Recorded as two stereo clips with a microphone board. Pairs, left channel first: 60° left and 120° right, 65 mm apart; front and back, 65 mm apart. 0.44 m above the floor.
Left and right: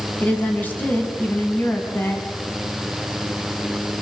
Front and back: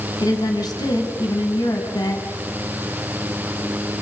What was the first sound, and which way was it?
A woman speaking, 5° right.